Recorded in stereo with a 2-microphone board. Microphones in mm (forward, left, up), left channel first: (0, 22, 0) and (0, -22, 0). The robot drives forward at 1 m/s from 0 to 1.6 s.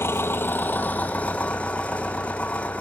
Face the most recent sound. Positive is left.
turn(degrees=25)  # may be behind; listen again after turning